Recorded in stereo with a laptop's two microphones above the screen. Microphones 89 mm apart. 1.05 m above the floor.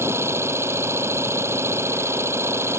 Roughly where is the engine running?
Right.